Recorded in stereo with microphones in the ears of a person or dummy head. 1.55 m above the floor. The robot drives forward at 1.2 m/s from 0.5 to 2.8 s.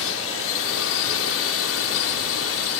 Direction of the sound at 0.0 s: 70° left (ahead or behind).